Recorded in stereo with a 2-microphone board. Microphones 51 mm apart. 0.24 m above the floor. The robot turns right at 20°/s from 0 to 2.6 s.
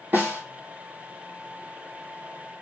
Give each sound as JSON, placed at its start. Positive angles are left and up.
{"t": 0.1, "sound": "a snare drum", "side_deg": -35, "distance_m": 1.3}